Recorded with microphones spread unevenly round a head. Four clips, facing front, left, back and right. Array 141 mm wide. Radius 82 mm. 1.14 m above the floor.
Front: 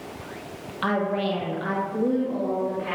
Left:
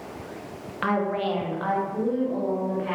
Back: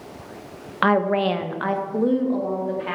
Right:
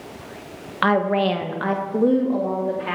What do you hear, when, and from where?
0.8 s a woman speaking: 165° right, 1.2 m; by 2.9 s 95° right, 3 m